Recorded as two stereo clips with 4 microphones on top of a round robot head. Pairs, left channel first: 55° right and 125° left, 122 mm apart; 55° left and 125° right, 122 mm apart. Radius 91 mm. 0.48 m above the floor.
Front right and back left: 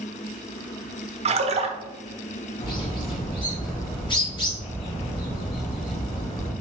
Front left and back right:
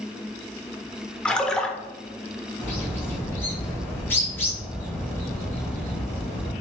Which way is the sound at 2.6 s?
15° right.